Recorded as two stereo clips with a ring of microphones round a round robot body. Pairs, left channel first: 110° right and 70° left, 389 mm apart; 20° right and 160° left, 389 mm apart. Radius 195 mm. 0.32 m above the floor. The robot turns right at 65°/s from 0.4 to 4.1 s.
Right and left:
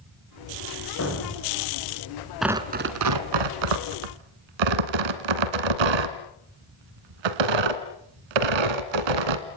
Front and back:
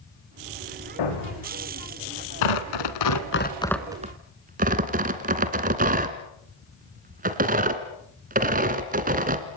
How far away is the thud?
About 9 m.